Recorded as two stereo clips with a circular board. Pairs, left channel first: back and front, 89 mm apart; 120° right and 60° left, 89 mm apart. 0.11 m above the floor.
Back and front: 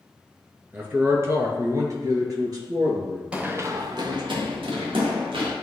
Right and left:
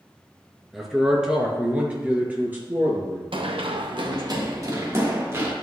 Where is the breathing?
No breathing in this recording.